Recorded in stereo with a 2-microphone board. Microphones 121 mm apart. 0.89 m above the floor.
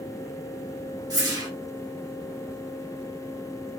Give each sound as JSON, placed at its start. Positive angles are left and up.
{"t": 1.1, "sound": "a whoosh", "side_deg": -30, "distance_m": 1.5}